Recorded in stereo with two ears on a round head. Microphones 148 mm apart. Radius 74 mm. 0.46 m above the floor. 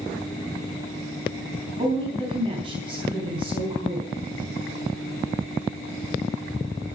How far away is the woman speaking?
About 3.5 m.